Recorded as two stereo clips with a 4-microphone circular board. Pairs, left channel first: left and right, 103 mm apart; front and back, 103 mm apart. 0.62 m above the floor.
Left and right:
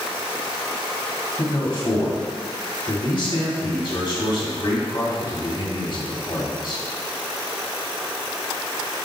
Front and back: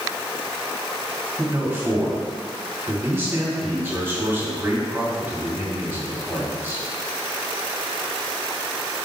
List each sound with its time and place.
1.4 s a man speaking: 115° left, 2 m